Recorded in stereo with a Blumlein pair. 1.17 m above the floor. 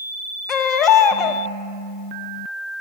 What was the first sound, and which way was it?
A baby crying, 30° left.